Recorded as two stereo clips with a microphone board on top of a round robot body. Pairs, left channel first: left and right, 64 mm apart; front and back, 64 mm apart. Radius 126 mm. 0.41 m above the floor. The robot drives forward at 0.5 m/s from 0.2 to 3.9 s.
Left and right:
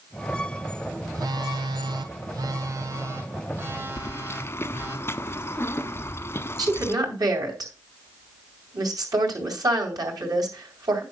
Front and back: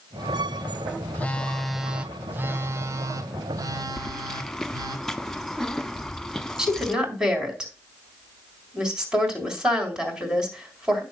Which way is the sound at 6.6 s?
100° right.